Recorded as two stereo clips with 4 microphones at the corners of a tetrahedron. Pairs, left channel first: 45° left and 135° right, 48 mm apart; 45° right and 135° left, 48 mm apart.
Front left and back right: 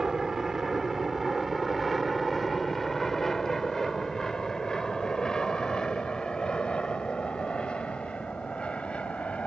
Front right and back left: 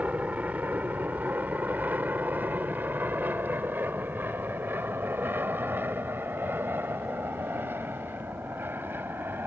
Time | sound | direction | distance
0.0 | an aircraft | 155° left | ?